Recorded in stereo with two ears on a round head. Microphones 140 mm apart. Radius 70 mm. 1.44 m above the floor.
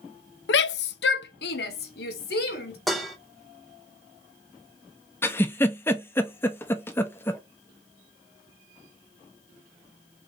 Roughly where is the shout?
Left.